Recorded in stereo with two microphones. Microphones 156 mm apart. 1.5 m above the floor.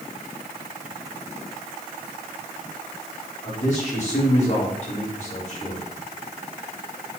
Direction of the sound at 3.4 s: 50° left (ahead or behind).